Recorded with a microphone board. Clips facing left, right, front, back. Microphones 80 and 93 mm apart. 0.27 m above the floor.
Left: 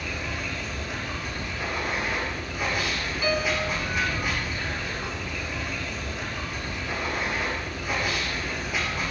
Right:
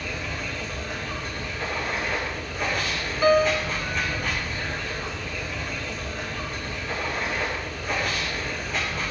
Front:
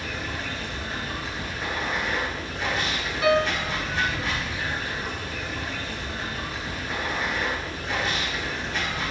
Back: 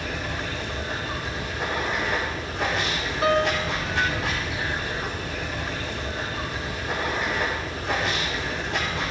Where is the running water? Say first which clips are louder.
Even, back 2 dB; 170° left, 7.5 m.